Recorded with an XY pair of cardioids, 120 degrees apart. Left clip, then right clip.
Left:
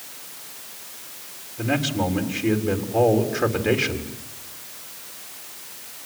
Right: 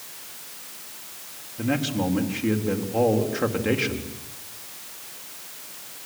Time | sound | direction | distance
1.6 | a man speaking | 5° right | 4 m